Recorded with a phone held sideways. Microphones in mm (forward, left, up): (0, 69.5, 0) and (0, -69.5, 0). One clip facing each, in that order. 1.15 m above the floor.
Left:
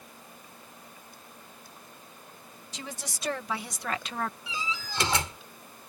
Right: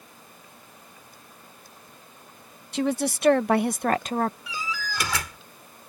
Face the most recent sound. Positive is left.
turn(degrees=25)  # may be behind; listen again after turning